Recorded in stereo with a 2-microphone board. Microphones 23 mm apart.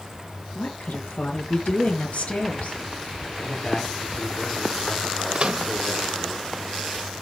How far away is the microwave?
About 1.0 m.